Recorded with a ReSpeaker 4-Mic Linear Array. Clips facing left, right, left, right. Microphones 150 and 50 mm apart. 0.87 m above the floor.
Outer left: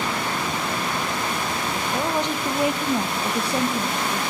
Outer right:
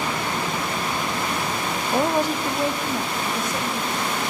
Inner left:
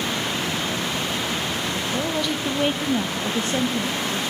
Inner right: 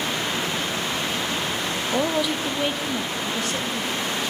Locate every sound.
1.9 s a woman speaking: 25° right (ahead or behind), 0.5 m; by 4.3 s 35° left (ahead or behind), 1.7 m